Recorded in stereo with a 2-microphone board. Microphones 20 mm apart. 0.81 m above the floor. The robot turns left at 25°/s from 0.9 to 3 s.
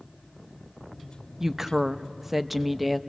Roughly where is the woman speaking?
Behind right.